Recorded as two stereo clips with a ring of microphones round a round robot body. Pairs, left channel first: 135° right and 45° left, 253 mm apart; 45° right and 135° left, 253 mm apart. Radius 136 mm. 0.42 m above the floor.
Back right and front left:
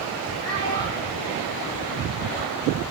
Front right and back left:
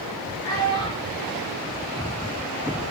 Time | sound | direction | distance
0.4 | a child speaking | 115° right | 5.5 m